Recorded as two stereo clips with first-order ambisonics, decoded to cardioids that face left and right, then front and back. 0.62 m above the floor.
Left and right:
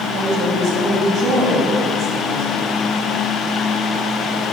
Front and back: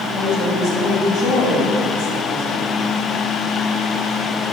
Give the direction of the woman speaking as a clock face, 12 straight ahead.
2 o'clock.